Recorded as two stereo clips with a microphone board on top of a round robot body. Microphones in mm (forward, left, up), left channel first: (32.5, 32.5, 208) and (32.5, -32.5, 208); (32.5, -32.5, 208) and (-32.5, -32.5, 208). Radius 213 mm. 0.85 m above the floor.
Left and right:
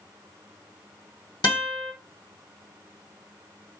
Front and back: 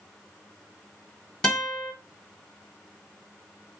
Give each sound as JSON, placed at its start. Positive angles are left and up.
{"t": 1.4, "sound": "a guitar", "azimuth_deg": 80, "distance_m": 1.9}